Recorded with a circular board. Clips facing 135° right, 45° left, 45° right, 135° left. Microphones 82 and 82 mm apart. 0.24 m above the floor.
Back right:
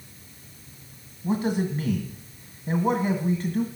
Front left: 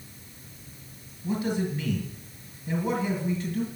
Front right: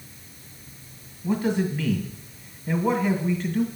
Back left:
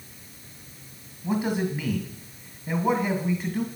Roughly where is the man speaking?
Behind right.